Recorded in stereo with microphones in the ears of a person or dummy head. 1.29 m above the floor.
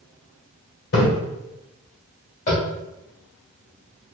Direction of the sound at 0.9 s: 65° left (ahead or behind).